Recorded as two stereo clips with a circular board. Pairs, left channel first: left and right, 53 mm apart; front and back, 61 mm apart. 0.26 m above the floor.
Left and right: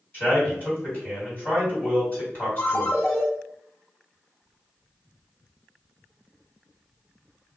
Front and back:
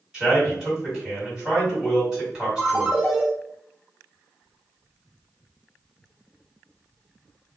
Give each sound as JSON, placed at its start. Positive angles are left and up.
{"t": 0.1, "sound": "a man speaking", "azimuth_deg": 105, "distance_m": 1.9}
{"t": 2.6, "sound": "a ringtone", "azimuth_deg": 100, "distance_m": 0.8}